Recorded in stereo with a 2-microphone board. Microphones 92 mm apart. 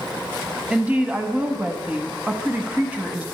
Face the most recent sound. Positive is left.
turn(degrees=-15)  # may be behind; listen again after turning